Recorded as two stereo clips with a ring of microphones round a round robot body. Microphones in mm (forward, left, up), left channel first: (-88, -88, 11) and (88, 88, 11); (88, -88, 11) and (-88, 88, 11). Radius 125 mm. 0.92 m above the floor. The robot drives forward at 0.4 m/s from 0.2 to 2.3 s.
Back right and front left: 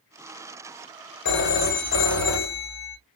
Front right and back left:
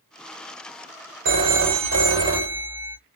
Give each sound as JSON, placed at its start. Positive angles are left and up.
{"t": 1.2, "sound": "a phone ringing", "azimuth_deg": 175, "distance_m": 1.0}